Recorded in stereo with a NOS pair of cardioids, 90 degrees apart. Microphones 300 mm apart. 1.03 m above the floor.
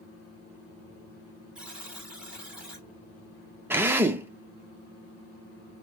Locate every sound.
1.6 s a buzzer: 5° right, 1.3 m
3.7 s a drill: 10° right, 0.6 m